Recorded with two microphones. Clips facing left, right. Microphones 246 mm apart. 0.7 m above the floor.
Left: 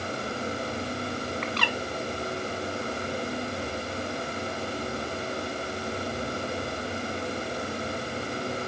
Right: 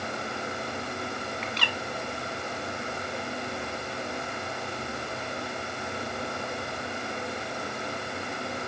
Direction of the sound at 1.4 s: 70° left (ahead or behind).